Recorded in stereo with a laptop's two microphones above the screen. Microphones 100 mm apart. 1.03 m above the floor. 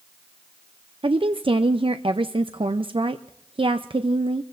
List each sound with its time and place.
1.0 s a woman speaking: 60° right (ahead or behind), 0.5 m